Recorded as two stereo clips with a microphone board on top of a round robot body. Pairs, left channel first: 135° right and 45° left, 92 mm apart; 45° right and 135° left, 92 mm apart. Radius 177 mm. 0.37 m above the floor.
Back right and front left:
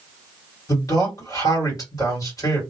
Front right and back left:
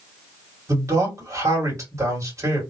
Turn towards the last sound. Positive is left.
turn(degrees=-175)